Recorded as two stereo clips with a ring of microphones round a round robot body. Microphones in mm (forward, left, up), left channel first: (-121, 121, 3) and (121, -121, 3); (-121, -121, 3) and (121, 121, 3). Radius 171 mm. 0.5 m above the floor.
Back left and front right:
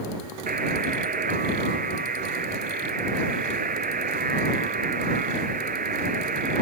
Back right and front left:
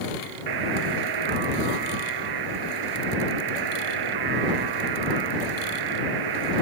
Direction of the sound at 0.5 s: 25° left.